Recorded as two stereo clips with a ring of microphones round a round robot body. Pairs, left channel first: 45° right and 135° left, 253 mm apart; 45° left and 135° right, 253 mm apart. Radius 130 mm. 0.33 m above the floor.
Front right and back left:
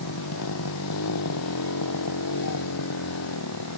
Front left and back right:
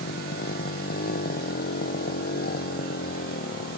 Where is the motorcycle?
15° right.